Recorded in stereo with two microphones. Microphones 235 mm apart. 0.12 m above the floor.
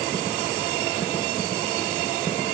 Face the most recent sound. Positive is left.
No sound to turn to.